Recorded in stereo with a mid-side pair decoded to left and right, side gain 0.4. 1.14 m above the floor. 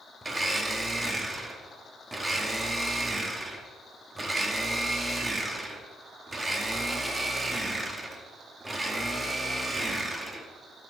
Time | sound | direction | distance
0.2 | a blender | 20° right | 1.1 m